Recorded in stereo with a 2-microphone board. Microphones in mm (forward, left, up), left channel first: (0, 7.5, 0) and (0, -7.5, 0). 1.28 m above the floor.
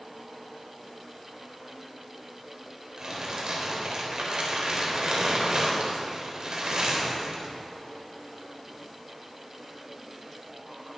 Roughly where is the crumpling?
Right.